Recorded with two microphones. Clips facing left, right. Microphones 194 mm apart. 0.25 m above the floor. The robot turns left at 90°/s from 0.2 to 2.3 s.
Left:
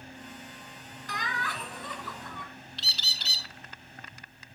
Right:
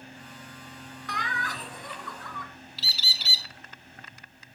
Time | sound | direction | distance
1.1 | laughter | 95° right | 1.9 m
2.8 | a bird | 5° right (ahead or behind) | 0.8 m